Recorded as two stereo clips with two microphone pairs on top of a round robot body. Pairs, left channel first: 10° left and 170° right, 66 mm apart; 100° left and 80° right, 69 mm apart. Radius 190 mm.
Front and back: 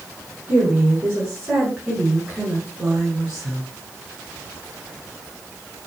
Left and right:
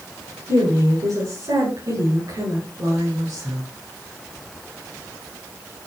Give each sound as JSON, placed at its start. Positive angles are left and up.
{"t": 0.5, "sound": "a woman speaking", "azimuth_deg": -100, "distance_m": 7.0}